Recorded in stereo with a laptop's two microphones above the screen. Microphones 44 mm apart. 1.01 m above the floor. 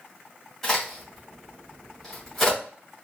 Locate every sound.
0.6 s a crack: 10° left (ahead or behind), 1.8 m